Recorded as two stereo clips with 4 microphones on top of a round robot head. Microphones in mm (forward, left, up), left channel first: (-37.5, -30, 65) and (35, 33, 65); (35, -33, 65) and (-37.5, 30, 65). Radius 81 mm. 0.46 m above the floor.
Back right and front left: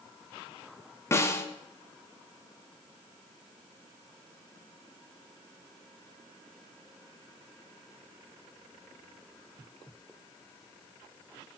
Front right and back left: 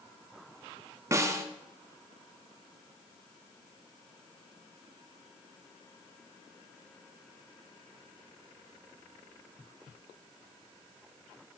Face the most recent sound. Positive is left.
turn(degrees=175)